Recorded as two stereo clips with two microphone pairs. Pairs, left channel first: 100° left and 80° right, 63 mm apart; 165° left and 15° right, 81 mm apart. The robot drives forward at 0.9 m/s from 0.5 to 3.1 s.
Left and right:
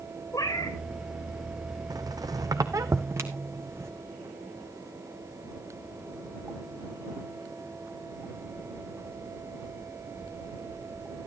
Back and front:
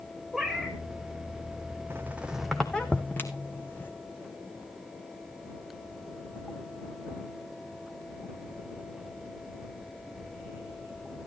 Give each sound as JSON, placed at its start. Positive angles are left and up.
{"t": 0.3, "sound": "a cat meowing", "azimuth_deg": 75, "distance_m": 1.1}
{"t": 1.9, "sound": "a squeak", "azimuth_deg": -75, "distance_m": 1.0}